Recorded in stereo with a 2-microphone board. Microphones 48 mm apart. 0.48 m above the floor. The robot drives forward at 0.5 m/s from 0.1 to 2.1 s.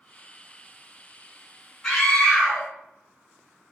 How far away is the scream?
About 1.5 m.